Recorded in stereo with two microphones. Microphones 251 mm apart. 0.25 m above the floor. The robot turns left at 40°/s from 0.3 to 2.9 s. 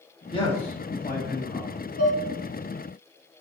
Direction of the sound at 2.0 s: 45° left (ahead or behind).